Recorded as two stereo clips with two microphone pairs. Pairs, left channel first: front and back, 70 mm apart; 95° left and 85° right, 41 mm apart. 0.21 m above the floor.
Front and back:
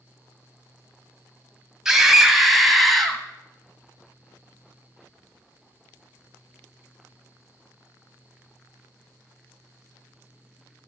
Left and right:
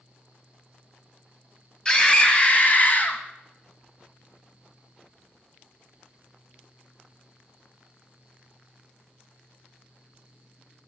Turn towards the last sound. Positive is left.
turn(degrees=85)